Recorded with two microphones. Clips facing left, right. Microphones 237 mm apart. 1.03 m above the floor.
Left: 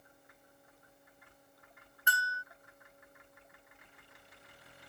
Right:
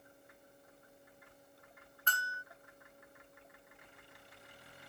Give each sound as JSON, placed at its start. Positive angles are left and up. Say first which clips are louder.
{"t": 2.1, "sound": "a bell", "louder": "left 4 dB", "side_deg": 10}